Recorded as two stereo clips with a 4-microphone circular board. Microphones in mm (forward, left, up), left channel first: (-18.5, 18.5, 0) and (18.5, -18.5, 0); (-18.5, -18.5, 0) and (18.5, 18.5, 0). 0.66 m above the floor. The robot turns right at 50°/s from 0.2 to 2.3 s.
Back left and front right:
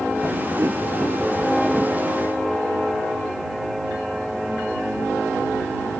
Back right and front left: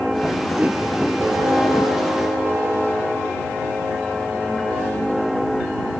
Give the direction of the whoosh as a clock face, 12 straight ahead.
1 o'clock.